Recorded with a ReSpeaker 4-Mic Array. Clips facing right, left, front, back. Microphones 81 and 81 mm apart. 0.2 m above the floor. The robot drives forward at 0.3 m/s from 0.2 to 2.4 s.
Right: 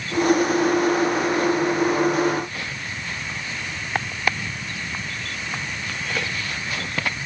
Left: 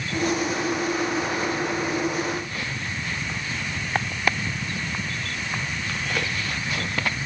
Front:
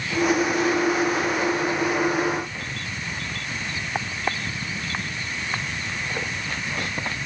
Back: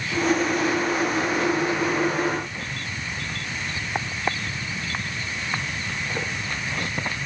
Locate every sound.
Only background noise.